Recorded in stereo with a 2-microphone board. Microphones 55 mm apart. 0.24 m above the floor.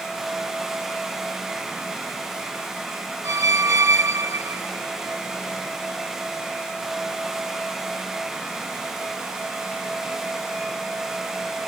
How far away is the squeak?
About 0.5 m.